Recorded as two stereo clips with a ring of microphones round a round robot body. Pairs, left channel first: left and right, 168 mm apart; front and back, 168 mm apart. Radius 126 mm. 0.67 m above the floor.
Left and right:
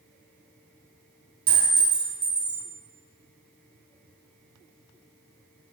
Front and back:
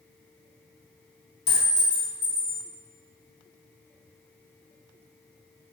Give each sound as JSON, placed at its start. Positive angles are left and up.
{"t": 1.5, "sound": "a clink", "azimuth_deg": -50, "distance_m": 0.6}